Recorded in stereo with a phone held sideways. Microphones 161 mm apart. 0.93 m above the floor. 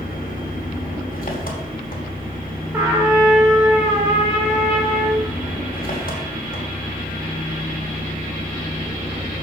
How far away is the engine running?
About 2.5 m.